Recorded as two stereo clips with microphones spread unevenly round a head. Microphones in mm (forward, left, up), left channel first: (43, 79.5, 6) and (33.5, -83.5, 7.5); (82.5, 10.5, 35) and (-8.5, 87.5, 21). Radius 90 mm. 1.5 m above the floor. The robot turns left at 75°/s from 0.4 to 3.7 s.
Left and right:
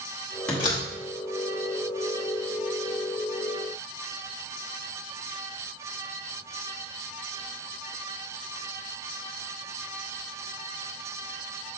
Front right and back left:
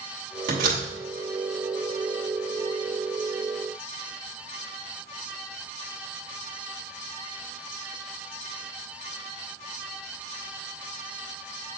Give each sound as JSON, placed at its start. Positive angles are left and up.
{"t": 0.5, "sound": "a door slam", "azimuth_deg": 170, "distance_m": 1.5}